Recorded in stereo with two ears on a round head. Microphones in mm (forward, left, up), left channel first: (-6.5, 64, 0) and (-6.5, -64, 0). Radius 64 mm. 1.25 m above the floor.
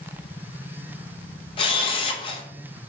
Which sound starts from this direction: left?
A camera shutter, at 1.6 s.